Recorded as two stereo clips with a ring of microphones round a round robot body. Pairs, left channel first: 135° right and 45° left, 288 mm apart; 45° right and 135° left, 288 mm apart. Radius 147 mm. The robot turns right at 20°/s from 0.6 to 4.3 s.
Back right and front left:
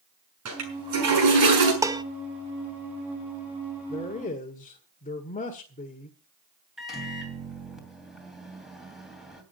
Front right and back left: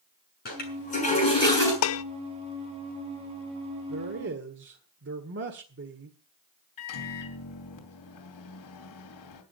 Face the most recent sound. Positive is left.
turn(degrees=-45)